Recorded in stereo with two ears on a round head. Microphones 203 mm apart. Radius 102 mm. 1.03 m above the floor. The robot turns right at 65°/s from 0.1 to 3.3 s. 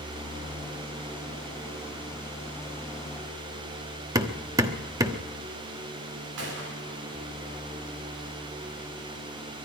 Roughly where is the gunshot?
Right.